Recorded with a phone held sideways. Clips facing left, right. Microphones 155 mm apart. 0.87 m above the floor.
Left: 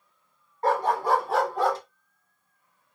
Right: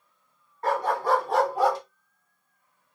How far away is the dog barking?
About 1.7 m.